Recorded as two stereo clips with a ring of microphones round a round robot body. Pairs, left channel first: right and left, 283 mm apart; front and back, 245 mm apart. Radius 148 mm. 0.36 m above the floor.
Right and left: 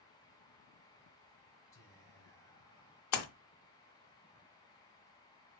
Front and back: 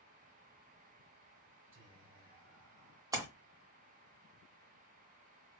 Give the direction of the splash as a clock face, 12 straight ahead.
3 o'clock.